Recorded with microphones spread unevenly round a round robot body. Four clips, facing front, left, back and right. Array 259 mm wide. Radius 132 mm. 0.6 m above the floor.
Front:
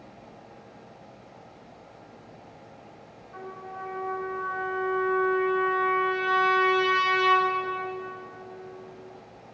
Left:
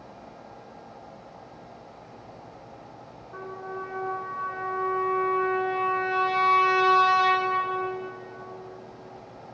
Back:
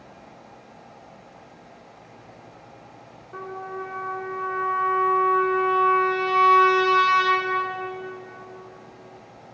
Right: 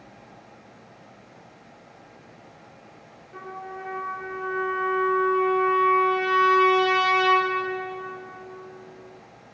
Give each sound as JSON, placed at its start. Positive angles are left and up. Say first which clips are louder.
{"t": 3.3, "sound": "a trumpet", "louder": "left 1 dB, back 6 dB", "azimuth_deg": 170, "distance_m": 2.5}